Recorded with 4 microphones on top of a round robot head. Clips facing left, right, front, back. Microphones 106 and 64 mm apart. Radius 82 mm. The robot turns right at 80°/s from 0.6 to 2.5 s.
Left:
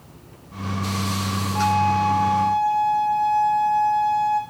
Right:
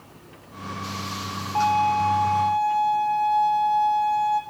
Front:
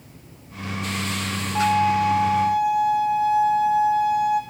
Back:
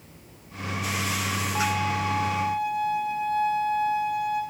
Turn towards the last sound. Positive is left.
turn(degrees=-5)